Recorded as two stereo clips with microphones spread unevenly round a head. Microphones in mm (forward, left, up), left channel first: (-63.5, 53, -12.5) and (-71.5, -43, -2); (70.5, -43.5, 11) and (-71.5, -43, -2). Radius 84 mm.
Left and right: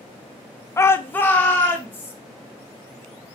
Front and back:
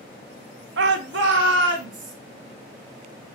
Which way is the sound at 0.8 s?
150° left.